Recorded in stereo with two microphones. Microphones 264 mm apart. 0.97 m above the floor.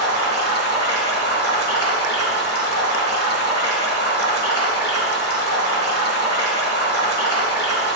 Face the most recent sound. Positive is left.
turn(degrees=-75)  # may be behind; listen again after turning